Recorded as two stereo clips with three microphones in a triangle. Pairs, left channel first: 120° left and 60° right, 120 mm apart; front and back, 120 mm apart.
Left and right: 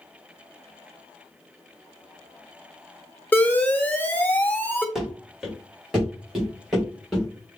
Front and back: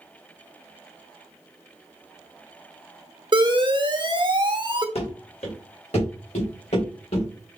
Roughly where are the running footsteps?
Ahead left.